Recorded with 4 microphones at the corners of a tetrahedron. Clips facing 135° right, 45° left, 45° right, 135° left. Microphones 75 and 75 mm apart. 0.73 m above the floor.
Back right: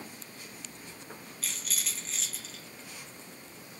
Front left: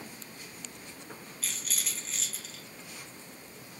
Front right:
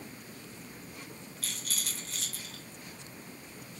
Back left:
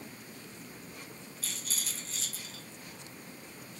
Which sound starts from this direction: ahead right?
A rattle, at 1.4 s.